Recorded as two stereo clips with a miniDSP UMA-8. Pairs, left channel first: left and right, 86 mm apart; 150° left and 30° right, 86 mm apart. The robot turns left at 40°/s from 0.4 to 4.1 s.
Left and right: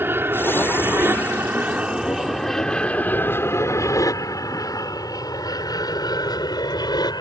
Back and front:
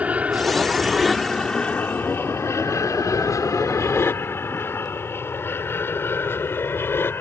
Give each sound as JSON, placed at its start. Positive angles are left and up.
{"t": 0.0, "sound": "an aircraft", "azimuth_deg": -80}